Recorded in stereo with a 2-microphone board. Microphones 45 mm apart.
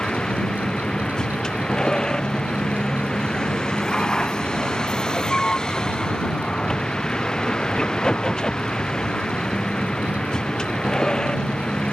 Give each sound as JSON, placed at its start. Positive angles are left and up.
{"t": 0.0, "sound": "a vehicle", "side_deg": 15}